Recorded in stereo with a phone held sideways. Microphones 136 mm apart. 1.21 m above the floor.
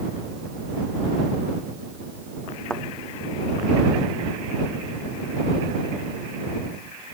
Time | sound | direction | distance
2.7 | a thud | 5° left (ahead or behind) | ?